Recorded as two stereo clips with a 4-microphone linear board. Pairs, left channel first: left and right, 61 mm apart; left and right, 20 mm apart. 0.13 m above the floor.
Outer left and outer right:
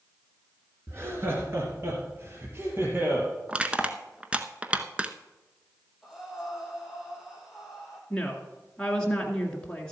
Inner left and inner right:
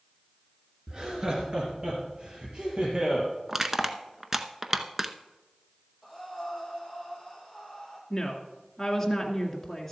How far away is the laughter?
About 2 m.